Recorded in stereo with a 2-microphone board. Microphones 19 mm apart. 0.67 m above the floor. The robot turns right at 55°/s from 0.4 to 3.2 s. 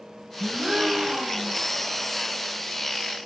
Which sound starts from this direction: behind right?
A gasp, at 0.4 s.